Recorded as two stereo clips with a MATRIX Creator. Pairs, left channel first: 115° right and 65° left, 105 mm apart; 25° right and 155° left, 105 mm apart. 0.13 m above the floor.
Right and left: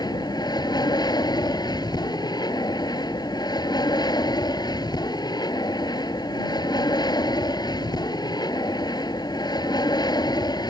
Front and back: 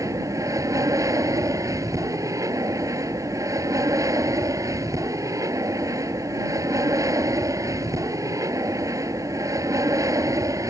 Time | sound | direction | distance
0.0 | an aircraft | 150° right | ?